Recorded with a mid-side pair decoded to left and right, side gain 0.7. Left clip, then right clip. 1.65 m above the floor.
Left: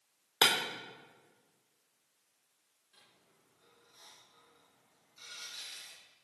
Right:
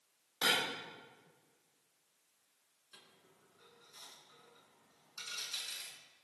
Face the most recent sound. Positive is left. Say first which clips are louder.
# right 4 dB
turn(degrees=-50)